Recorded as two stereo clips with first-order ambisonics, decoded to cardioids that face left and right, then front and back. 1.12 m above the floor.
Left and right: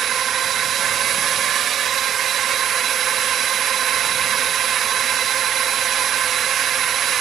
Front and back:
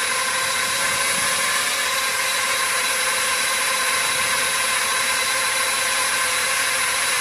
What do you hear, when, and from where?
0.0 s a drone: 90° right